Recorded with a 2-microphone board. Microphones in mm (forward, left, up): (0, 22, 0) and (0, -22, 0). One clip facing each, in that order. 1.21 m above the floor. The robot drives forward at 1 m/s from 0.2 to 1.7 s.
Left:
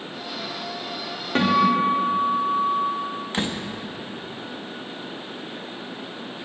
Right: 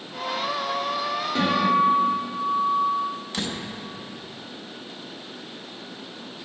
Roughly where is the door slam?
Left.